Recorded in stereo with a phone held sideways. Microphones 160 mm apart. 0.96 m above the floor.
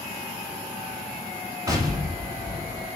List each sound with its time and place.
1.7 s an explosion: 20° right (ahead or behind), 1.3 m